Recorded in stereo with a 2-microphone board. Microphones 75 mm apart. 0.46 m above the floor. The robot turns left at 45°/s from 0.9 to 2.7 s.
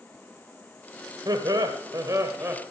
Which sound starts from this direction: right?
Laughter, at 1.2 s.